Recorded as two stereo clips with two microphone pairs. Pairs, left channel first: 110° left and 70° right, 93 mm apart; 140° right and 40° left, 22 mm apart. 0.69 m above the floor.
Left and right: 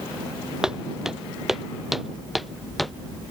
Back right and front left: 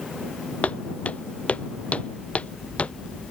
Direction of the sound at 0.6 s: 155° right.